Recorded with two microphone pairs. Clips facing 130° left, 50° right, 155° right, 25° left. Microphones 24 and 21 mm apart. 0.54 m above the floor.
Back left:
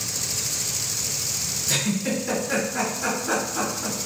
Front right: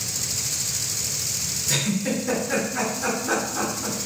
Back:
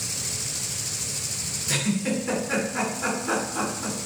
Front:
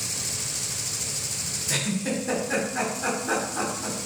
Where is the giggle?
160° right, 1.6 m.